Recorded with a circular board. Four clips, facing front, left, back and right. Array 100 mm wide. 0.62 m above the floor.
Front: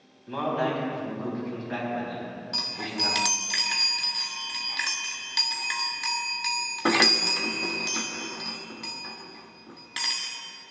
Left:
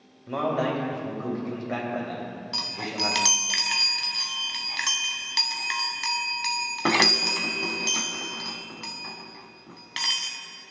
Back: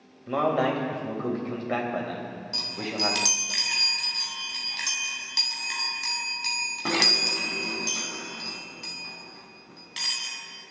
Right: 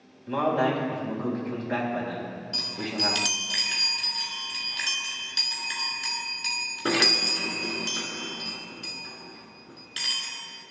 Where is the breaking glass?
I don't hear breaking glass.